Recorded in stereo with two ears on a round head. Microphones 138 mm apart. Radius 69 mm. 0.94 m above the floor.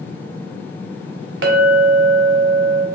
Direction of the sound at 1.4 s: 80° right.